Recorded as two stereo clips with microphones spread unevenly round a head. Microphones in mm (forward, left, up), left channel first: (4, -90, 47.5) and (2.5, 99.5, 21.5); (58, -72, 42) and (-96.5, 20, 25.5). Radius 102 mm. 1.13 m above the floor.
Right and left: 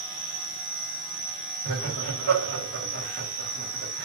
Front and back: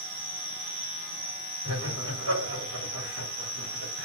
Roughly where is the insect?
Behind left.